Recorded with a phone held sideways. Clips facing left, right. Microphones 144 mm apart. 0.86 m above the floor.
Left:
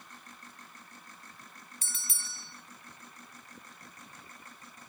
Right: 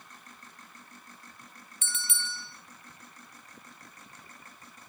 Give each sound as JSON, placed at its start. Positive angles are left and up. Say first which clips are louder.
{"t": 1.8, "sound": "a bell", "louder": "right 11 dB", "side_deg": 35, "distance_m": 1.2}